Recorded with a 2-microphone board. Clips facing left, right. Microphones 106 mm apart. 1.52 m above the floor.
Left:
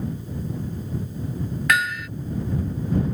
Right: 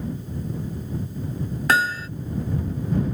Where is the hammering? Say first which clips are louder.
Right 2 dB; 30° right (ahead or behind).